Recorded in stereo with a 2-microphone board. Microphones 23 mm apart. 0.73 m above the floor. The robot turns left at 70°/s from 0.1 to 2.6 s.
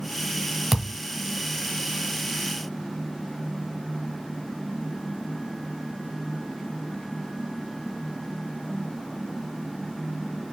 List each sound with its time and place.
0.7 s a thud: 5° left (ahead or behind), 0.9 m; by 1.0 s 15° right (ahead or behind), 0.9 m